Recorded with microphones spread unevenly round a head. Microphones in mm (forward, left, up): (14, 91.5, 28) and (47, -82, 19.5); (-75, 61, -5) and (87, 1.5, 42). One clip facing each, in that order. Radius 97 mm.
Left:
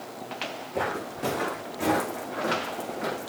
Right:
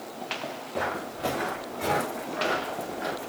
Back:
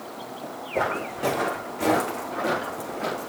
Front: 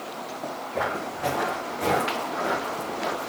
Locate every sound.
0.7 s footsteps: 120° left, 5.5 m; by 3.3 s 100° left, 5 m